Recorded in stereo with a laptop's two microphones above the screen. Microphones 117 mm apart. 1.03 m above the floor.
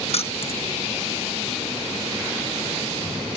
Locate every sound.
0.1 s keys jangling: 60° left (ahead or behind)